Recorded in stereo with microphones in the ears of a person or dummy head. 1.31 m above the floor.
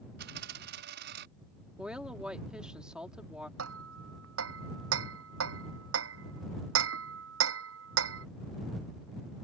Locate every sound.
0.2 s a dropped coin: 65° right (ahead or behind)
1.8 s a woman speaking: 10° right (ahead or behind)
3.6 s hammering: 85° right